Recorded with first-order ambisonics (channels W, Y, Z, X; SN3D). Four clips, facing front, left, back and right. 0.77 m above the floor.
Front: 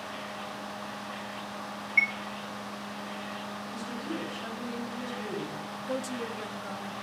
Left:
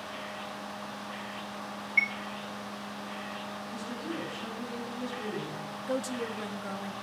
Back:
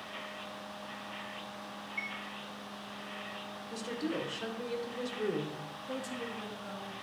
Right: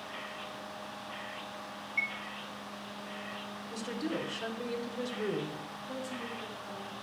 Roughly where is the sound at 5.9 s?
Ahead left.